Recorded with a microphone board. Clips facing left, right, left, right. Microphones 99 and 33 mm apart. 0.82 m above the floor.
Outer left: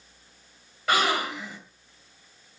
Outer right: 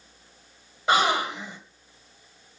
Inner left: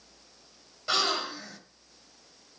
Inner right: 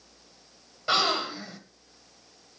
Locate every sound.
0.9 s a gasp: 20° right (ahead or behind), 2 m